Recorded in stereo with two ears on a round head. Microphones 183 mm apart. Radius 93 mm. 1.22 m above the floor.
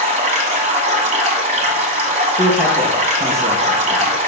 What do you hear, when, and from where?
0.0 s running water: 35° right (ahead or behind), 1.5 m
2.4 s a man speaking: centre (ahead or behind), 1.2 m